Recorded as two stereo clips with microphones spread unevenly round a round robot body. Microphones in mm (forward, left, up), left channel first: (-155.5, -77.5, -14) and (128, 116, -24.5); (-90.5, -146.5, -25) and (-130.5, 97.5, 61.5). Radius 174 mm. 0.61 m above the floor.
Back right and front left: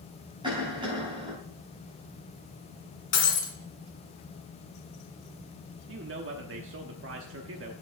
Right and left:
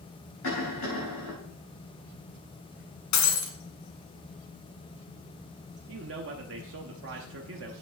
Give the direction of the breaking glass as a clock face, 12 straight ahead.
3 o'clock.